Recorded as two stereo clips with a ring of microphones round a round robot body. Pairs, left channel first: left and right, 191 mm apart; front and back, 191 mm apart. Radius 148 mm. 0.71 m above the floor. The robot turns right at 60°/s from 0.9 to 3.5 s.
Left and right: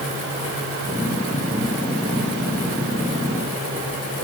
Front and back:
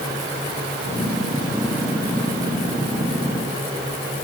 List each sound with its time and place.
Only background noise.